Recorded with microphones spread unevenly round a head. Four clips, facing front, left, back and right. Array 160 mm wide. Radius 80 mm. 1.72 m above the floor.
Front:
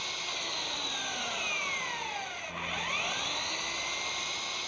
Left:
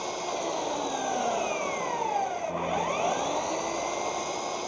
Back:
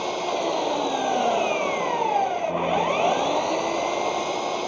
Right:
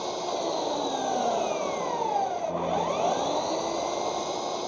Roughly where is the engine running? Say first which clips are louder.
Right 2 dB, back 16 dB; behind.